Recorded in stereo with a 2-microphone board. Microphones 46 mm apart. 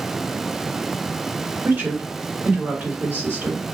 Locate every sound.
1.6 s a woman speaking: 50° right (ahead or behind), 1.8 m